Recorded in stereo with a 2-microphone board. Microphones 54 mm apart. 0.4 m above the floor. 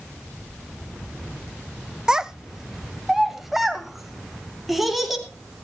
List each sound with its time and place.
2.1 s a child speaking: 15° right (ahead or behind), 0.5 m; by 5.3 s centre (ahead or behind), 2.5 m